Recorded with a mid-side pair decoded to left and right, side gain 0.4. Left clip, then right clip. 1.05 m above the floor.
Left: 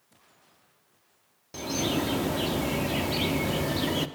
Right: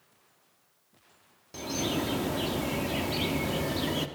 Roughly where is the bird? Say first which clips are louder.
Left 2 dB; ahead.